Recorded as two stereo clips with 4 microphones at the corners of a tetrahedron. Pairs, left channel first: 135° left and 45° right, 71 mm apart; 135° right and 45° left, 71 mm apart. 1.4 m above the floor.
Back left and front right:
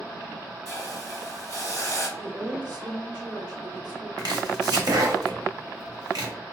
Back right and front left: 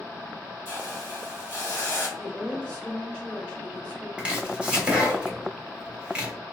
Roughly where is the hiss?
Behind.